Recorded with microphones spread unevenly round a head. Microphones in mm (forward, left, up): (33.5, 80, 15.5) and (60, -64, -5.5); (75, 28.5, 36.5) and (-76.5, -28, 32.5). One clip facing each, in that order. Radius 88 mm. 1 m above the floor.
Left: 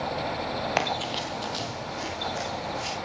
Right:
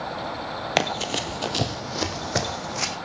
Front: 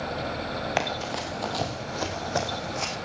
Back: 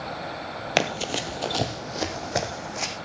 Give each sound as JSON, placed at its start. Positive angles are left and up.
{"t": 0.8, "sound": "running footsteps", "azimuth_deg": -135, "distance_m": 1.2}